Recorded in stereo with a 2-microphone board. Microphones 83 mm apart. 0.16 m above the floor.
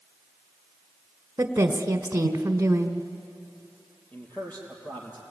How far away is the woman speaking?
About 1.2 m.